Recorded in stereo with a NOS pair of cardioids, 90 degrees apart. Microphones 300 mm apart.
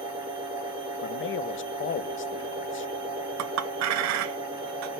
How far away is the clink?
About 0.6 m.